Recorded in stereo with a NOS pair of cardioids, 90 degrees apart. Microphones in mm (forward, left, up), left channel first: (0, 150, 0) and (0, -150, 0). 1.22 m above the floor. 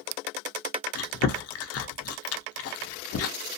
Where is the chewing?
55° left, 0.6 m.